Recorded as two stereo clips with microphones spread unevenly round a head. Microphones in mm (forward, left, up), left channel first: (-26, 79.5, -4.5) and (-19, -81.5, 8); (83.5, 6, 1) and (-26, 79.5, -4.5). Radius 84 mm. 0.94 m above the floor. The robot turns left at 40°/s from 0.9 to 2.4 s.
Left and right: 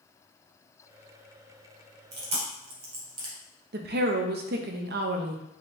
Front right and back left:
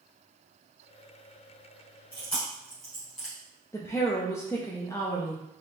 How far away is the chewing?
About 2 m.